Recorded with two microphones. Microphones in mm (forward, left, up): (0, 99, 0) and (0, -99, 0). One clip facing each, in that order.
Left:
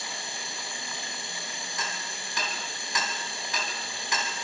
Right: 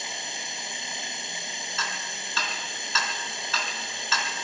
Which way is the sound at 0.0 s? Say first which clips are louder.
Right 1 dB; 20° right (ahead or behind).